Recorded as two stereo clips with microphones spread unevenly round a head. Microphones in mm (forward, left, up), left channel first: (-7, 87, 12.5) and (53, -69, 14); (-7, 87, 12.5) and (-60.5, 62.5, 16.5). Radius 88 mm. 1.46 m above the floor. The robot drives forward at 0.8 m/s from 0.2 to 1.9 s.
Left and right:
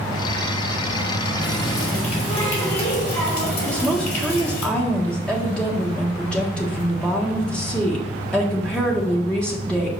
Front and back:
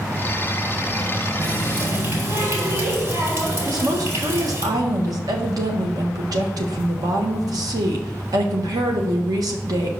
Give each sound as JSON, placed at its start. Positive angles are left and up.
{"t": 1.4, "sound": "a running tap", "azimuth_deg": 165, "distance_m": 3.5}
{"t": 3.6, "sound": "a woman speaking", "azimuth_deg": -165, "distance_m": 1.5}